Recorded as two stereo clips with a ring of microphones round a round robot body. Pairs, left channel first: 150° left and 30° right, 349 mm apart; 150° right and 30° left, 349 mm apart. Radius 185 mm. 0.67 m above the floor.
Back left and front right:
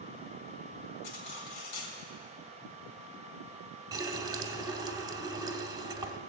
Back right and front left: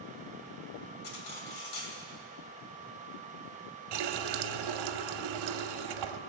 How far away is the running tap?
About 0.9 m.